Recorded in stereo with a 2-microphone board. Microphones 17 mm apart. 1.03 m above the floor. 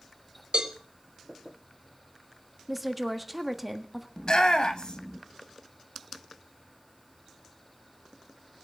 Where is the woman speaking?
5° right (ahead or behind), 1.4 m.